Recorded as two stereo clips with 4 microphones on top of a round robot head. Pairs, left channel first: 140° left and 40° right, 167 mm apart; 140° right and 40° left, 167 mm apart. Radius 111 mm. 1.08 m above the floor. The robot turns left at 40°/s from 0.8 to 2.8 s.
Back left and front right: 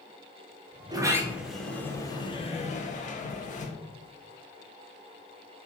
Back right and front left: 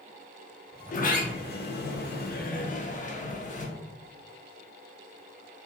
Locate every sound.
0.9 s a sliding door: 105° right, 0.7 m; by 3.7 s straight behind, 0.7 m